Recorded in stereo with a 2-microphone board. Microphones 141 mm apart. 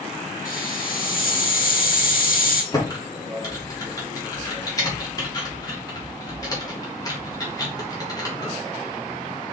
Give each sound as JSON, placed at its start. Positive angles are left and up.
{"t": 0.5, "sound": "a hiss", "side_deg": 75, "distance_m": 4.0}
{"t": 2.7, "sound": "typing on a keyboard", "side_deg": 25, "distance_m": 3.0}